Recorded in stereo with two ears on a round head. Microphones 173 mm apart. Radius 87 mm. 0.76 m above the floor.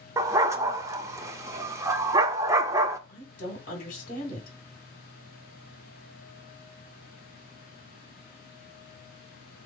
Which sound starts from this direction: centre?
A dog barking, at 0.2 s.